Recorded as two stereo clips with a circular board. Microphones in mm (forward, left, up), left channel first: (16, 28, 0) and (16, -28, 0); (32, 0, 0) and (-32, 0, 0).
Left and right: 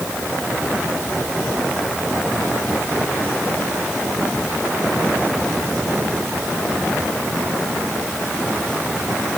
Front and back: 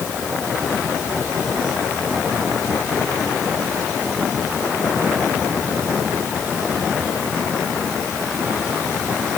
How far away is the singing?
I don't hear singing.